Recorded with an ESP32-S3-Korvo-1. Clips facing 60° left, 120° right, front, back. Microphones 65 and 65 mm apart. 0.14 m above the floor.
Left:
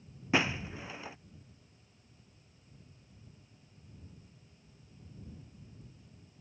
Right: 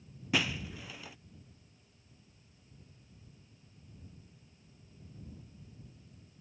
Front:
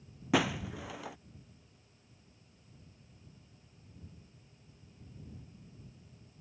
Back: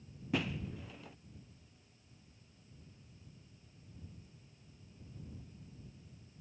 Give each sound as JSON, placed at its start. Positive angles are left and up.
{"t": 0.3, "sound": "breaking glass", "azimuth_deg": -5}